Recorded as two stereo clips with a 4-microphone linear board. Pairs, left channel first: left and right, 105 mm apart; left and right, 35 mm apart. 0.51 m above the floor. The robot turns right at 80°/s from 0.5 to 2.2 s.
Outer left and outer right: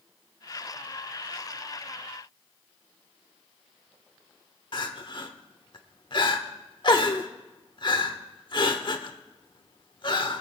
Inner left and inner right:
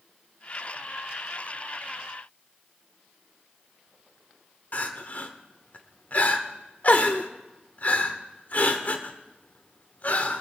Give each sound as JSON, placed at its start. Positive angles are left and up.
{"t": 4.7, "sound": "crying", "side_deg": 50, "distance_m": 1.2}